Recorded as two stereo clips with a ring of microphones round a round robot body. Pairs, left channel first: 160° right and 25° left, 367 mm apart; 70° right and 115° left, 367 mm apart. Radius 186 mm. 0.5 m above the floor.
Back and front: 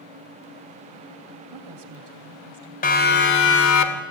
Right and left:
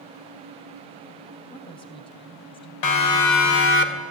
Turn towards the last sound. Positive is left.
turn(degrees=-130)